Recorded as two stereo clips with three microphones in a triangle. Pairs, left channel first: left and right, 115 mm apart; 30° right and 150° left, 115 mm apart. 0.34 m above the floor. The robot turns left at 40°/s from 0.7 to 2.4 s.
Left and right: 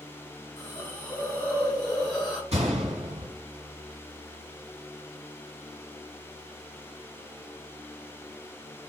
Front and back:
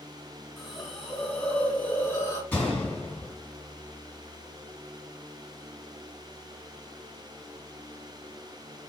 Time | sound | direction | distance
0.6 | a hiss | 55° left | 1.4 m
2.5 | a gunshot | 105° right | 2.5 m